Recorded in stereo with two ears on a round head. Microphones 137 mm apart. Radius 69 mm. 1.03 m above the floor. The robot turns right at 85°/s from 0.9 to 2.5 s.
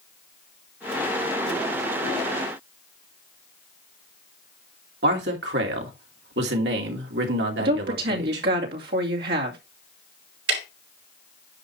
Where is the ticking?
80° right, 4 m.